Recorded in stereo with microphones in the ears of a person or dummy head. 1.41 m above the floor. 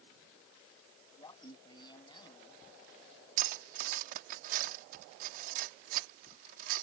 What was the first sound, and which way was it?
Laughter, 25° left (ahead or behind).